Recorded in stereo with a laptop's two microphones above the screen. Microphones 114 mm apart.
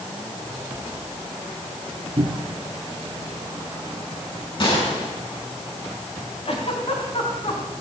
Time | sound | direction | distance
2.2 | a cupboard door | 55° right (ahead or behind) | 1.1 m
4.6 | a gunshot | 45° left (ahead or behind) | 7.5 m
6.5 | a giggle | 60° left (ahead or behind) | 3 m